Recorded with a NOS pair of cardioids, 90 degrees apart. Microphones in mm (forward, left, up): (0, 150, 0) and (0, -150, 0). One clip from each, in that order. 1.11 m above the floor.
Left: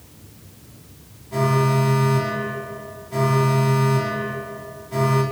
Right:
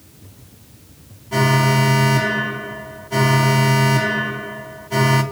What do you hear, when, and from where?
1.3 s an alarm: 55° right, 3 m